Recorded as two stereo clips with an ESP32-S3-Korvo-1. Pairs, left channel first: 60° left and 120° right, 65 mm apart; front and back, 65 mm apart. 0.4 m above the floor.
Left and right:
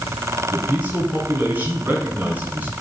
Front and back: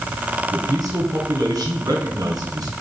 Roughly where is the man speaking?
Behind.